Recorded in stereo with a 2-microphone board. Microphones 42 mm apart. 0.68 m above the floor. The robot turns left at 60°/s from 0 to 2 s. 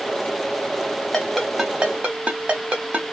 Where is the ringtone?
15° left (ahead or behind), 1.1 m; by 3.0 s 35° right (ahead or behind), 1.1 m.